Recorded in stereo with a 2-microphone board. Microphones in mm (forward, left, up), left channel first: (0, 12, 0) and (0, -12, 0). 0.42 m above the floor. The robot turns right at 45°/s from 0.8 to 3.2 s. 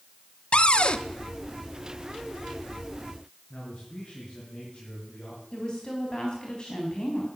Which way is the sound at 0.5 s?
45° left (ahead or behind).